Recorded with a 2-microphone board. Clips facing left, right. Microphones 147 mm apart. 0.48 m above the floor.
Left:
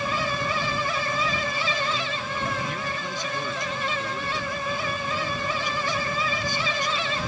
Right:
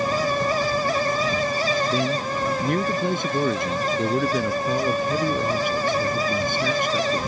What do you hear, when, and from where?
1.9 s a man speaking: 55° right (ahead or behind)